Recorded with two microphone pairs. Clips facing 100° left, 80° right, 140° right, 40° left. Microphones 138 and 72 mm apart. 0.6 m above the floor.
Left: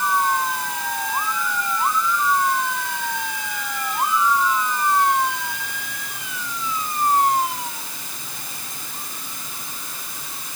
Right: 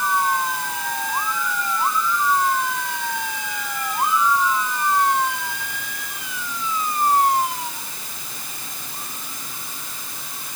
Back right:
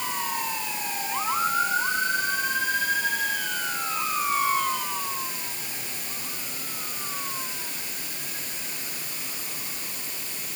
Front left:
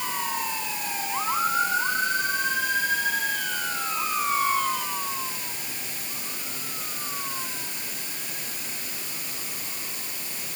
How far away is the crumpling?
I don't hear crumpling.